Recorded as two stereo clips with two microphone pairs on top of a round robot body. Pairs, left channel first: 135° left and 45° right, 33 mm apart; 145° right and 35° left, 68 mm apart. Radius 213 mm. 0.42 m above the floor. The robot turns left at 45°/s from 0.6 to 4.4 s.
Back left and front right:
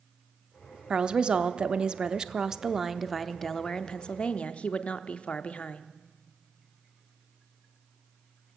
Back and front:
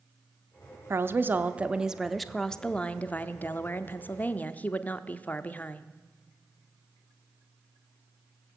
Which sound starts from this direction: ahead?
A woman speaking, at 0.9 s.